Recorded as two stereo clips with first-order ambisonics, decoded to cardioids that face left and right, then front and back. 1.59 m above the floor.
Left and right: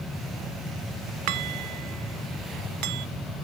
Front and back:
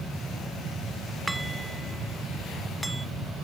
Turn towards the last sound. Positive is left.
turn(degrees=-100)